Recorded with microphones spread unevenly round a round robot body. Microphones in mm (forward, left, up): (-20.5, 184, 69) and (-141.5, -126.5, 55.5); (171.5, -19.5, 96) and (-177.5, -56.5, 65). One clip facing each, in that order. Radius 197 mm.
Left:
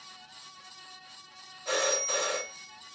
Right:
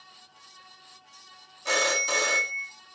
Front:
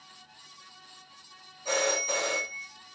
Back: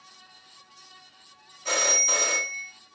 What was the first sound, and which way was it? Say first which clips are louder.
A phone ringing: right 1 dB, front 2 dB; 125° right.